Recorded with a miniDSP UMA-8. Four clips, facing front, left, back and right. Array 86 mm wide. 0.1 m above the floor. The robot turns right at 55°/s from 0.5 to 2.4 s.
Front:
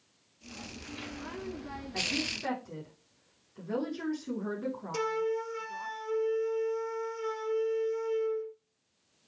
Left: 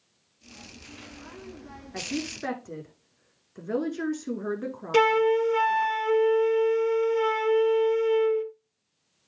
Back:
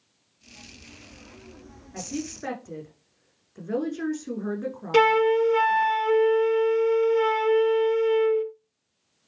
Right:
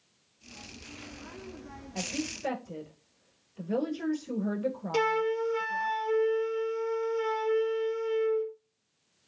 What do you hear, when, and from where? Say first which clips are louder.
1.9 s a woman speaking: left 3 dB, back 4 dB; 85° left, 6 m; by 5.9 s 110° left, 6 m
4.9 s a flute: left 8 dB, back 14 dB; 145° left, 0.5 m